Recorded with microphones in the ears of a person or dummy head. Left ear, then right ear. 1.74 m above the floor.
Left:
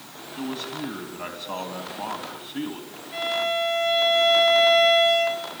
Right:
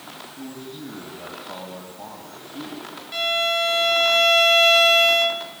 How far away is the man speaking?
About 3 m.